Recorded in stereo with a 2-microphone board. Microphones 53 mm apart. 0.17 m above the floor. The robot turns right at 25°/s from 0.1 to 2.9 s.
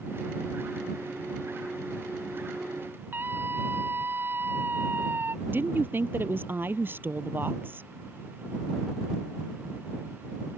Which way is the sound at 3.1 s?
40° right (ahead or behind).